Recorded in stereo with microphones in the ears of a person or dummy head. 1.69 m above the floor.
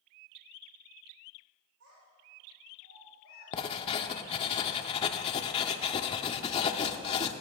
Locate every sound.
1.8 s a child speaking: 75° right (ahead or behind), 3.5 m
3.5 s writing: 35° left (ahead or behind), 0.8 m